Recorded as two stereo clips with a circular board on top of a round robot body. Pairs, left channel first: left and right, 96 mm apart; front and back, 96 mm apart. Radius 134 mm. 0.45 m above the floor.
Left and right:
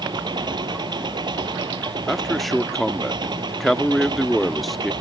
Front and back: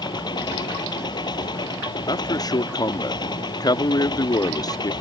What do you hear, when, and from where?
0.0 s an engine running: 45° right
2.1 s a man speaking: straight ahead